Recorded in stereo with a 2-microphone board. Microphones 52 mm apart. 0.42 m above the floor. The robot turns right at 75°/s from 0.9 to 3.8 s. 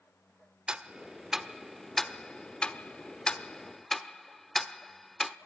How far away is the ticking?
About 0.9 m.